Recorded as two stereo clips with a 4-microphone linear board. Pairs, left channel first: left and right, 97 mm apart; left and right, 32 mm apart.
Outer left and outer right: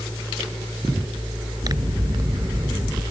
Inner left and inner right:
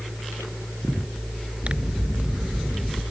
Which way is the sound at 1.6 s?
40° right (ahead or behind).